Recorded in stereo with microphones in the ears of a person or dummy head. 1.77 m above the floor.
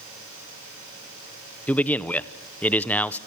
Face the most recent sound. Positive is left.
turn(degrees=10)  # may be behind; listen again after turning